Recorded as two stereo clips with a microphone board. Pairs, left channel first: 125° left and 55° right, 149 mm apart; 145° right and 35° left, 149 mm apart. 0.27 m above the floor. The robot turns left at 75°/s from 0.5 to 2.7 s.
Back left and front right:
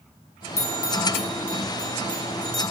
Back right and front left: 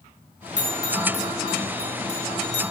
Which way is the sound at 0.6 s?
115° left.